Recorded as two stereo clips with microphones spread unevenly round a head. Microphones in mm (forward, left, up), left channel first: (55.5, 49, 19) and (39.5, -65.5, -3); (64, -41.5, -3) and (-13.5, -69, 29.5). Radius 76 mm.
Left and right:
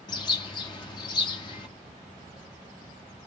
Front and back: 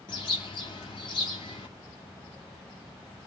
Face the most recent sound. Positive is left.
turn(degrees=75)